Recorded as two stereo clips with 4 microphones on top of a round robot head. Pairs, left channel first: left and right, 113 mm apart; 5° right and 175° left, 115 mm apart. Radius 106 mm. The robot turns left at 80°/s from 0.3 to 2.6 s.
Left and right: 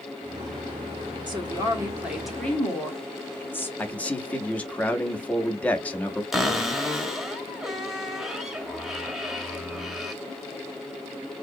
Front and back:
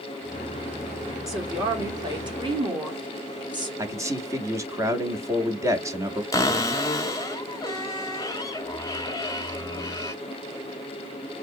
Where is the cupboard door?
10° right, 0.9 m.